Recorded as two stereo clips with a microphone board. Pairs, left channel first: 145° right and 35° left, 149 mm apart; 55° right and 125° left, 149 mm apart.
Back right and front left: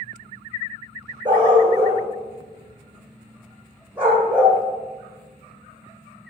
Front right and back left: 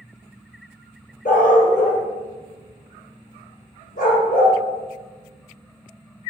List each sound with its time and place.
1.2 s a dog barking: 25° right, 3.5 m; by 4.6 s 45° right, 5 m